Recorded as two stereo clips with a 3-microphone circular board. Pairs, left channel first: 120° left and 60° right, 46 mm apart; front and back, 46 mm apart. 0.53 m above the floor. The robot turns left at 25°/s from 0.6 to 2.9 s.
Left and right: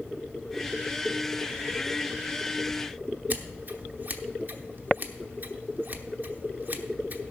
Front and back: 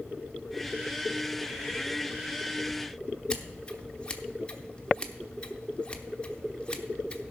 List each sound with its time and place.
3.3 s scissors: 55° right, 0.9 m